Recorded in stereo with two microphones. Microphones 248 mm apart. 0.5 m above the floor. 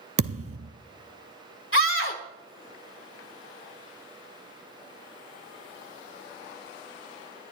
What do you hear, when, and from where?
0.2 s a thud: 70° right (ahead or behind), 1.0 m
1.7 s a scream: 55° left (ahead or behind), 3 m